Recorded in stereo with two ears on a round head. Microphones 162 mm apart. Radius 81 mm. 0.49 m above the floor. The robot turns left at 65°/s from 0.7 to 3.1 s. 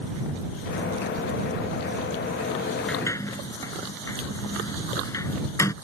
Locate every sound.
2.9 s a sliding door: 5° left (ahead or behind); by 5.7 s 15° left (ahead or behind)